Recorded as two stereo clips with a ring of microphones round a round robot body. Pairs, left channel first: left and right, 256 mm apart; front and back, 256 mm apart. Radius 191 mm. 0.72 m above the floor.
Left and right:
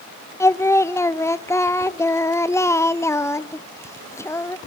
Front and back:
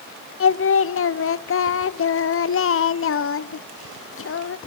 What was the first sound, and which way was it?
Singing, 10° left.